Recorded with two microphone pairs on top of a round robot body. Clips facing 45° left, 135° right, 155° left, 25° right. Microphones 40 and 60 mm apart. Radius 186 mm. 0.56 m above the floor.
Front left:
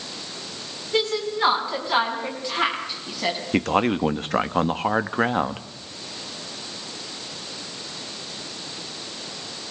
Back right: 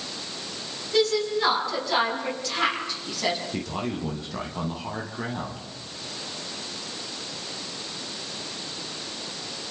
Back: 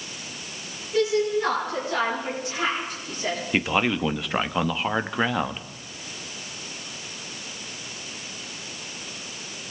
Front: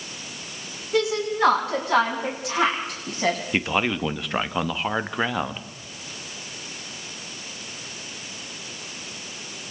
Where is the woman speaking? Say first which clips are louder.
Back right 1 dB, back 1 dB; 20° right, 7 m; by 3.4 s 35° right, 6 m.